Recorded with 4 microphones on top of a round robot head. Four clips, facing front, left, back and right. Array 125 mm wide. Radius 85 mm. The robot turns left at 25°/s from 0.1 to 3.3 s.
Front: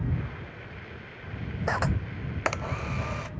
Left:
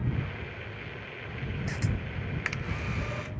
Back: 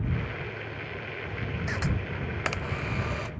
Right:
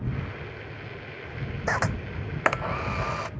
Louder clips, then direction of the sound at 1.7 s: Right 11 dB, front 6 dB; 50° right.